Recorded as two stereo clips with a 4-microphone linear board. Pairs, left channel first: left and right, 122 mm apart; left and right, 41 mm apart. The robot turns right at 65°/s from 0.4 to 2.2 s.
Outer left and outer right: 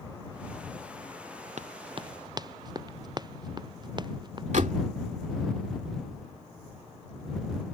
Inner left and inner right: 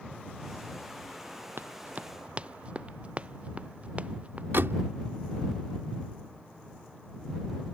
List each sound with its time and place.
1.6 s running footsteps: 70° right (ahead or behind); by 4.4 s 40° right (ahead or behind)
4.5 s a door slam: 80° right